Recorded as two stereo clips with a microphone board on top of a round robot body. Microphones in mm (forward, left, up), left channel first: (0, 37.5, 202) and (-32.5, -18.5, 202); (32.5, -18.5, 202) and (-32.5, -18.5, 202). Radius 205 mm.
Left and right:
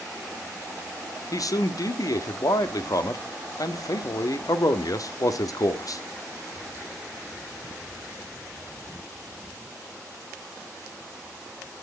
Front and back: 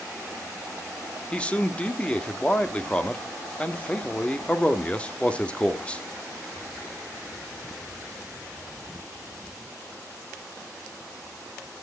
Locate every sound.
1.3 s a man speaking: 70° left, 1.5 m